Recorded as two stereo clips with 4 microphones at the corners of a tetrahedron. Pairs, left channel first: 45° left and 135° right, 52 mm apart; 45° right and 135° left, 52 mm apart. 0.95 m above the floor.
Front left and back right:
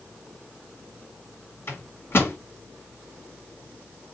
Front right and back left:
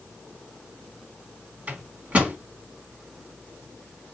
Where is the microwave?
80° left, 1.6 m.